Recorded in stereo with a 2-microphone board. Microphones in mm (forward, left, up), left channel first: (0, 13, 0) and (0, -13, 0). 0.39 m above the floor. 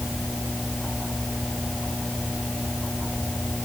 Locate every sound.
Only background noise.